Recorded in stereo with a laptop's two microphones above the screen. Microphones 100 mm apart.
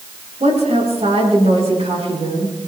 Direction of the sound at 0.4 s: 85° right.